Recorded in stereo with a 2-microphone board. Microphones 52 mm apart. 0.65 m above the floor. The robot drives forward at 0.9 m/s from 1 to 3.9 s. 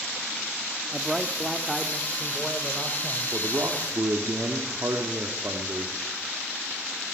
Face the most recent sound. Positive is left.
turn(degrees=-55)  # may be behind; listen again after turning